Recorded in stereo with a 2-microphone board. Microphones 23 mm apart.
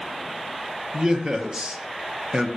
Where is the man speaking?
35° right (ahead or behind), 0.6 m.